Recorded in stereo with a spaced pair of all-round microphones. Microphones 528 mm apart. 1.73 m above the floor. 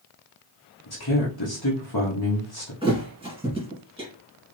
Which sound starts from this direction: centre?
A thud, at 2.8 s.